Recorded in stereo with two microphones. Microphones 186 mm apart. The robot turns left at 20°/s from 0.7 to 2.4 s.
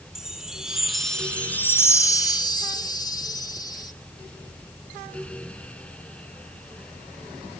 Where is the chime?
175° right, 0.6 m; by 3.9 s 150° left, 0.6 m.